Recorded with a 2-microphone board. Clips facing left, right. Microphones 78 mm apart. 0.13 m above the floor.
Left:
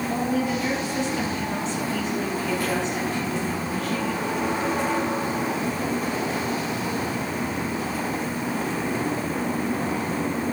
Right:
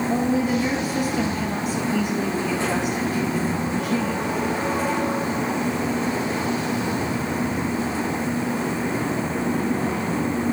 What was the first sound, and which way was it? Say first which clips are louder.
A woman speaking: right 3 dB; 10° right (ahead or behind).